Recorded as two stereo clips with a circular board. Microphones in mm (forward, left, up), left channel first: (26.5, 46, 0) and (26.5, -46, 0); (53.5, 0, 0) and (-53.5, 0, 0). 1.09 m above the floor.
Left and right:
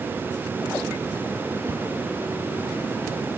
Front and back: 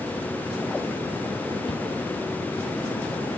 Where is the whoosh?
30° right.